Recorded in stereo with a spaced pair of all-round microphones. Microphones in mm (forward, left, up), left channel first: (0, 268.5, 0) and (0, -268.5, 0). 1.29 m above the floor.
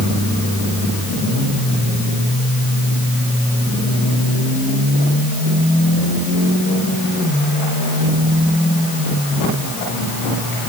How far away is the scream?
No scream in this recording.